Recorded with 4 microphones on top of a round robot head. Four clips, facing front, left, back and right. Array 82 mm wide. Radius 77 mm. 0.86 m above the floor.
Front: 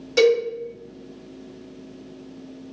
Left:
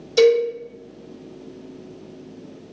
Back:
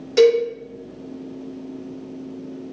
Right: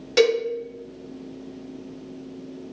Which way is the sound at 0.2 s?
95° right.